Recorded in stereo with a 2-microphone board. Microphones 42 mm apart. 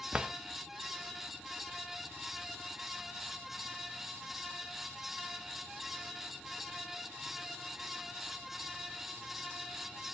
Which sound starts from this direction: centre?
A drawer, at 0.1 s.